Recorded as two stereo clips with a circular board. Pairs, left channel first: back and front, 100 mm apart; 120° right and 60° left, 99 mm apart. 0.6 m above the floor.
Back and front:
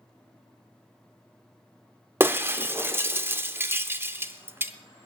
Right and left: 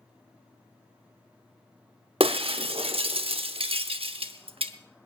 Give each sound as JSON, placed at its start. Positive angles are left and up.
{"t": 2.2, "sound": "breaking glass", "azimuth_deg": 65, "distance_m": 0.8}